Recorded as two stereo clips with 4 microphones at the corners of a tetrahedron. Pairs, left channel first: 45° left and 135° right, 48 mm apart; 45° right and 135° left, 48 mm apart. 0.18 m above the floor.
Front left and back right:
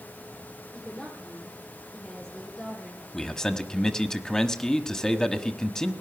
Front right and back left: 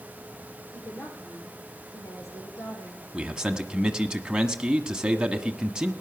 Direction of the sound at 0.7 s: 25° right.